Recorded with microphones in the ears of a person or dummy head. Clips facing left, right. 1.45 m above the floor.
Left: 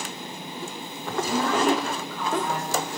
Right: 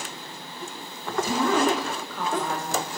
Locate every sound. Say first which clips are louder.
1.2 s a woman speaking: even; 75° right (ahead or behind), 0.7 m; by 2.9 s 40° right (ahead or behind), 1.1 m